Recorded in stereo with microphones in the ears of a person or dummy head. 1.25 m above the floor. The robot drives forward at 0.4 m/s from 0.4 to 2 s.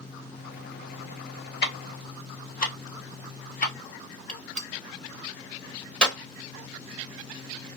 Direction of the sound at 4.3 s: Centre (ahead or behind).